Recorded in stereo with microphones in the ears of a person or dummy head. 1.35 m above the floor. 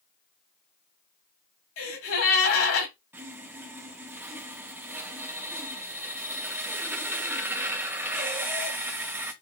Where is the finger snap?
I don't hear a finger snap.